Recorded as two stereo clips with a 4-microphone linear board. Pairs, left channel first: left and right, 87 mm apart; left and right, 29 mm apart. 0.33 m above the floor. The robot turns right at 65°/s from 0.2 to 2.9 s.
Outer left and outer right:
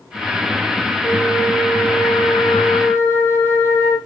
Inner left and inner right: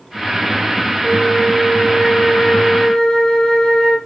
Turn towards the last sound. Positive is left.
turn(degrees=155)